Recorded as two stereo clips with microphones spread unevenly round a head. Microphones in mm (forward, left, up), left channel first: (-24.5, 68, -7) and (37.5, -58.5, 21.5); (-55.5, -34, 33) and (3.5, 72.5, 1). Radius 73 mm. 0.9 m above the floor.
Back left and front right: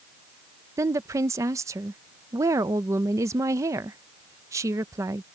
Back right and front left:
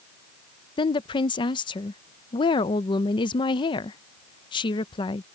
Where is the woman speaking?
130° right.